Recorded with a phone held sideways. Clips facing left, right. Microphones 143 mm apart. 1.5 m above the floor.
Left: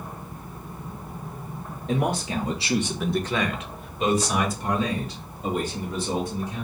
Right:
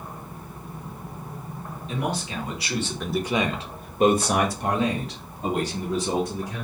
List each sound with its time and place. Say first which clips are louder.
1.9 s a man speaking: left 4 dB; 50° left (ahead or behind), 0.9 m; by 6.7 s 75° right (ahead or behind), 2 m